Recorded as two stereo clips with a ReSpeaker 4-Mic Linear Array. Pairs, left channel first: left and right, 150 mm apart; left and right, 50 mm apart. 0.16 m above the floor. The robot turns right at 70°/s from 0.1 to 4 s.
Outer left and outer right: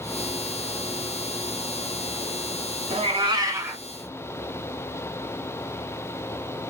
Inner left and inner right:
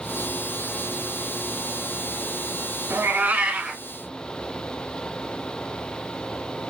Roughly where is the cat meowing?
Right.